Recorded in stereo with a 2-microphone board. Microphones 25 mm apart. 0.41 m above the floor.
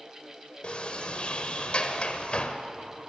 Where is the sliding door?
45° left (ahead or behind), 1.3 m.